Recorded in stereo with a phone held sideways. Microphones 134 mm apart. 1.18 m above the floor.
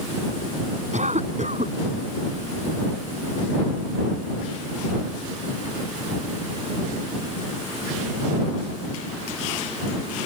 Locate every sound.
0.9 s a cough: 60° right (ahead or behind)